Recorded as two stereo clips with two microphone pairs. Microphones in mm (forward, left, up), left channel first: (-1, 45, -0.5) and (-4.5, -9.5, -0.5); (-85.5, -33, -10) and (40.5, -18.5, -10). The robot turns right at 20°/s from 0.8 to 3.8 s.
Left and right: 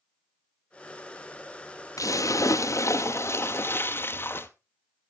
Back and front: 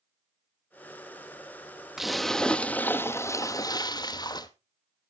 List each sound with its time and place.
2.0 s a splash: 95° left, 0.8 m; by 4.5 s 130° left, 0.8 m